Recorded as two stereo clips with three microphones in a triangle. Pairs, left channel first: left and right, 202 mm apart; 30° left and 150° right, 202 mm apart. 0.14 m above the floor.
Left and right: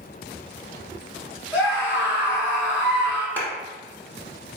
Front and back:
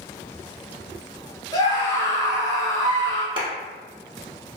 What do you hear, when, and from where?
1.5 s a scream: 25° right, 1.6 m
3.4 s a clap: 165° left, 1.0 m